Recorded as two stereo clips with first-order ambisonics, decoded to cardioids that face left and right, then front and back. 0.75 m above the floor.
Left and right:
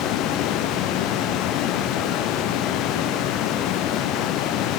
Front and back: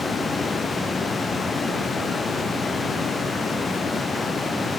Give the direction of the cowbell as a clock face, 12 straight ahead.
I don't hear a cowbell.